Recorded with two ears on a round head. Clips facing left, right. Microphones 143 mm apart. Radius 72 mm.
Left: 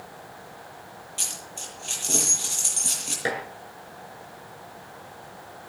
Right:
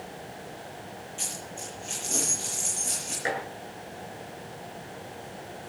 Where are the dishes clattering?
40° left (ahead or behind), 6.5 m.